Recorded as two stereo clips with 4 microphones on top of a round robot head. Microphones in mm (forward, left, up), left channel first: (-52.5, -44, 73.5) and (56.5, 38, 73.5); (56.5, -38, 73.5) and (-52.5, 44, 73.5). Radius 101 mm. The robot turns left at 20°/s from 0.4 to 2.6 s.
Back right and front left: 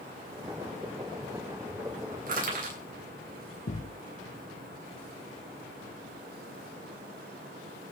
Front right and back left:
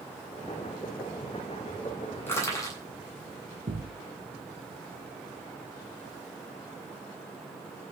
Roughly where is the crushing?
Ahead left.